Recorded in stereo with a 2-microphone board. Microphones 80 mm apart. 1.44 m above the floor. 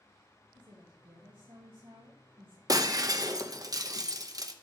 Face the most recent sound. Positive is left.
turn(degrees=-45)  # may be behind; listen again after turning